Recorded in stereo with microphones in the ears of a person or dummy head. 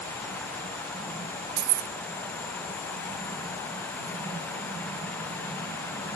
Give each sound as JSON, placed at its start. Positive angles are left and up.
{"t": 1.6, "sound": "keys jangling", "side_deg": -55, "distance_m": 0.6}